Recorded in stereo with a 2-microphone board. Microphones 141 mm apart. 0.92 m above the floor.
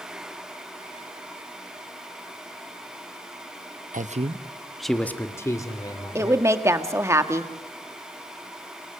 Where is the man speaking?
65° right (ahead or behind), 0.9 m; by 6.5 s 30° left (ahead or behind), 3 m.